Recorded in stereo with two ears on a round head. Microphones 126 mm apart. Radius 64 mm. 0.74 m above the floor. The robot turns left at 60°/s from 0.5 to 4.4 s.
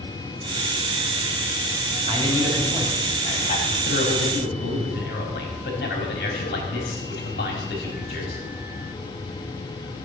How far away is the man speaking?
About 4.5 m.